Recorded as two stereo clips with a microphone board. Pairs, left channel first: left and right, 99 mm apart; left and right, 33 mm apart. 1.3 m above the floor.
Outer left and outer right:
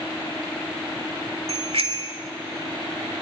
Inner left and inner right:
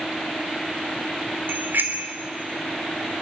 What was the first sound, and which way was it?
A bicycle bell, 75° right (ahead or behind).